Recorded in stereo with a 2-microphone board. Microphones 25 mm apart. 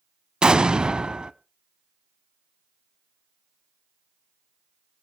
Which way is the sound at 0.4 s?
35° right (ahead or behind).